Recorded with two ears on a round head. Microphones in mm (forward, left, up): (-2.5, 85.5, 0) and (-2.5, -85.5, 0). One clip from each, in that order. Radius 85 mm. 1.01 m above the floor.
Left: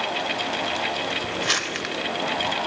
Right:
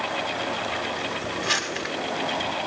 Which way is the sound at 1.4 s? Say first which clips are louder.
Even; 75° left (ahead or behind).